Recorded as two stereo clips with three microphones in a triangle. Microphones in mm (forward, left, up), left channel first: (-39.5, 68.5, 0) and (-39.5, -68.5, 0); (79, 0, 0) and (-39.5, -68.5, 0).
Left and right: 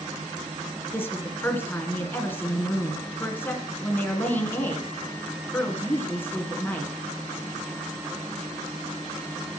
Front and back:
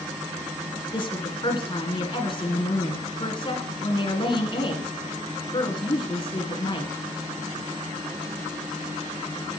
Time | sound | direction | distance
0.9 | a woman speaking | 25° left | 1.9 m